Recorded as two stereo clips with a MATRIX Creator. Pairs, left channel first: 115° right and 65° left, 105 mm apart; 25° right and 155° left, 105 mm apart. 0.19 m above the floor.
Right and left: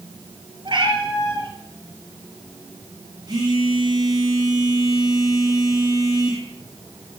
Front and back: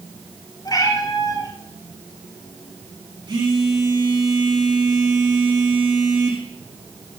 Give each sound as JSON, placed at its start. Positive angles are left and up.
{"t": 0.7, "sound": "a cat meowing", "azimuth_deg": 25, "distance_m": 2.5}
{"t": 3.3, "sound": "a phone buzzing", "azimuth_deg": 115, "distance_m": 5.0}